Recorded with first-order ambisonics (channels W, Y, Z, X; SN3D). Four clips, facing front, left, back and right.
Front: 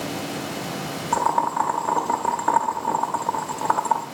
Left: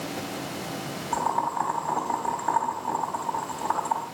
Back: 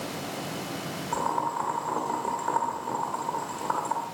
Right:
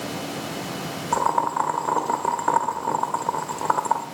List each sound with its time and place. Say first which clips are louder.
1.1 s boiling: right 4 dB, front 7 dB; 55° right, 0.8 m